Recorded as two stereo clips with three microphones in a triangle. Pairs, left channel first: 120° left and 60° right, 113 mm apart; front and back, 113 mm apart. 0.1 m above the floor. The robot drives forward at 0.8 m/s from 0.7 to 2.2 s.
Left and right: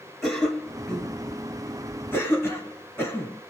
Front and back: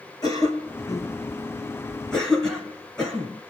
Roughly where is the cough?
Ahead left.